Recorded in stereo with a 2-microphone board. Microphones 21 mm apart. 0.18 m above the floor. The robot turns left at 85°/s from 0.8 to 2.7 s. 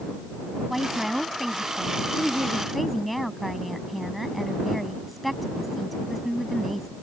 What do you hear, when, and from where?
0.7 s a woman speaking: 5° right (ahead or behind); by 6.9 s centre (ahead or behind)